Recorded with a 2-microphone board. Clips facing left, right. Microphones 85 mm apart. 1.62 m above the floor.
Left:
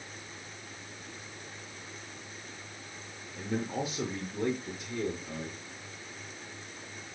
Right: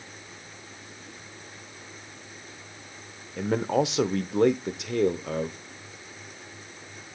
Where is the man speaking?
80° right, 0.7 m.